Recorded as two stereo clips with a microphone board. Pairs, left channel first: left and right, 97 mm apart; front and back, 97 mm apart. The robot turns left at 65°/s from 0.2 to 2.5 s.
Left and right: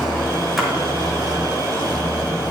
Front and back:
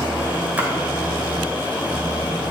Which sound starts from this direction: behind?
A splash, at 0.6 s.